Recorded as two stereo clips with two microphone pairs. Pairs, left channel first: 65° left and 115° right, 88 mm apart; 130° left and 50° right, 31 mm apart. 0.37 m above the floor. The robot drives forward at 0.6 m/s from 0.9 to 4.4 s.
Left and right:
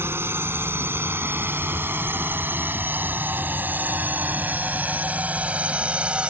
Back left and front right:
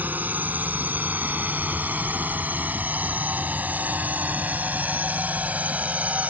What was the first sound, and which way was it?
A drone, 55° right.